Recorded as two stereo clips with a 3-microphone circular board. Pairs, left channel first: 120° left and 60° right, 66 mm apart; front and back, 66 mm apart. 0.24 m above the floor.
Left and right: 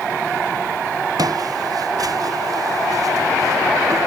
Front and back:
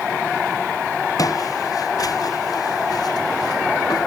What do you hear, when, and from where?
1.2 s footsteps: 30° right; by 4.1 s 25° right